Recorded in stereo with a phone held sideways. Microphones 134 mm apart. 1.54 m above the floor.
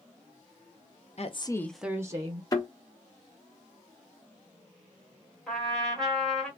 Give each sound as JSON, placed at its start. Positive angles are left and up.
{"t": 1.2, "sound": "a woman speaking", "side_deg": 55, "distance_m": 0.7}
{"t": 2.5, "sound": "a thud", "side_deg": 25, "distance_m": 1.3}
{"t": 5.5, "sound": "a trumpet", "side_deg": 5, "distance_m": 1.6}